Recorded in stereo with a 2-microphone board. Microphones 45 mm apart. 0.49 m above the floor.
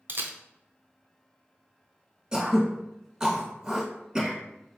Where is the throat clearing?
20° right (ahead or behind), 1.2 m.